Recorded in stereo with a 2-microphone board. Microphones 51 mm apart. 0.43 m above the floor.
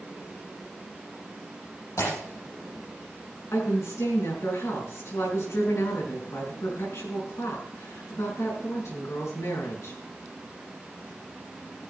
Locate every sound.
2.0 s breaking glass: 80° left, 7.5 m
3.5 s a woman speaking: 70° left (ahead or behind), 5 m